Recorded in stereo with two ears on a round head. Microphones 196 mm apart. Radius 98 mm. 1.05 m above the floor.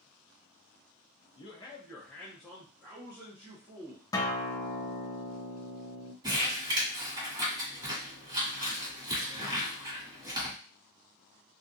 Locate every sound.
1.4 s a man speaking: 25° left (ahead or behind), 0.6 m; by 4.0 s 15° right (ahead or behind), 1.4 m
4.1 s a guitar: 15° left (ahead or behind), 0.5 m
6.2 s crumpling: 20° right (ahead or behind), 1.6 m